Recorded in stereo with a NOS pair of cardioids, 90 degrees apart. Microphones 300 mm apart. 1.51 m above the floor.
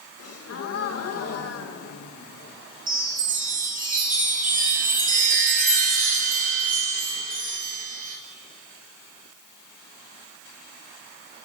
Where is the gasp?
50° left, 1.8 m.